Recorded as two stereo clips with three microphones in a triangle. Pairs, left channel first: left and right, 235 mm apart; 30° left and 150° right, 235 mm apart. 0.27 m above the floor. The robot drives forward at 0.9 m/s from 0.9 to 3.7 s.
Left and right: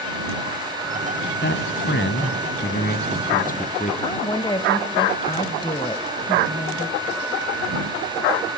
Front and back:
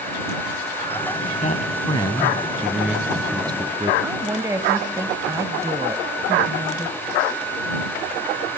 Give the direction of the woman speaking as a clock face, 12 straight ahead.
7 o'clock.